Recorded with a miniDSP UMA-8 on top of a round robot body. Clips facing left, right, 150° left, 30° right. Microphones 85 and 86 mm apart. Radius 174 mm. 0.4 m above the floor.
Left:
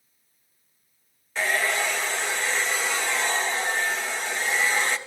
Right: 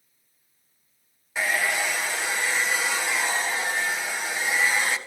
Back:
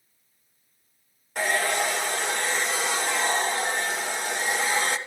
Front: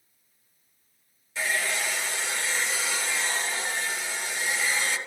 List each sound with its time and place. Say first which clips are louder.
1.4 s a hair dryer: left 1 dB, back 5 dB; 170° right, 1.8 m